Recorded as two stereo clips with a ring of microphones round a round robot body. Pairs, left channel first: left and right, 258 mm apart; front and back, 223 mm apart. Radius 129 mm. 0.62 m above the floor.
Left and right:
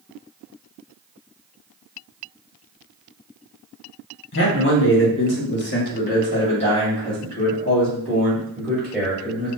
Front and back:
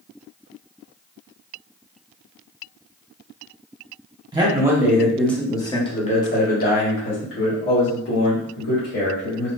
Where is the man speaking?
115° left, 1.2 m; by 9.5 s 5° right, 2.5 m.